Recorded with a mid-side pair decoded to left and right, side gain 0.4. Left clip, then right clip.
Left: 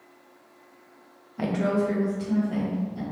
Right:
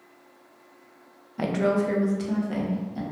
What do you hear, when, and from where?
1.4 s a woman speaking: 20° right, 0.7 m; by 3.0 s 65° right, 1.5 m